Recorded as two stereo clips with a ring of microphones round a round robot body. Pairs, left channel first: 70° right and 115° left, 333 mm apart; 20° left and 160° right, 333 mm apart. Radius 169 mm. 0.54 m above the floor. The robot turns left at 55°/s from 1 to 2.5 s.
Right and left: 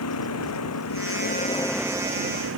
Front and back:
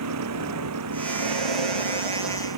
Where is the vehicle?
115° right; by 2.6 s 165° left.